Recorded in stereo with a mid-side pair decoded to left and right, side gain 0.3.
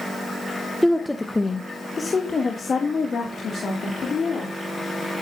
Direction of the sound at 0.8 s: Straight ahead.